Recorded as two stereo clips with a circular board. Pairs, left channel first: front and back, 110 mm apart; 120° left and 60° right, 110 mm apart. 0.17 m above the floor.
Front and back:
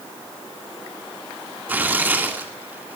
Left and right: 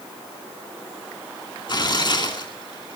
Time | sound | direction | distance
1.7 | tearing paper | 115° left | 2 m